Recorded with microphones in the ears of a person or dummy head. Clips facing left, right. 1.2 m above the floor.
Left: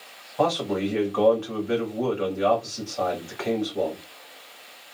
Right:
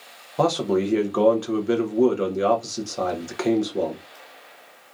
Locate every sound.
0.4 s a man speaking: 45° right (ahead or behind), 0.7 m